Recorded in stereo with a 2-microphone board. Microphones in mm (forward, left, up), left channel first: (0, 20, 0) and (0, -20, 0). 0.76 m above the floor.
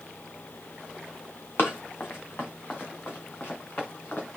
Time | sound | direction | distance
1.6 | running footsteps | 60° left (ahead or behind) | 2 m